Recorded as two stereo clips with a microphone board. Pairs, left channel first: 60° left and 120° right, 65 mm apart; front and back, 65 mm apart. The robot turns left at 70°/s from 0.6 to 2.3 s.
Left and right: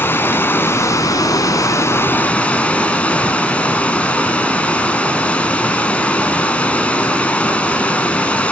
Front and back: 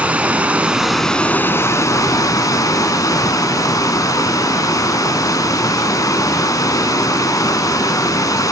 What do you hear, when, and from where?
0.0 s running water: 115° left, 0.9 m; by 8.5 s 5° right, 0.9 m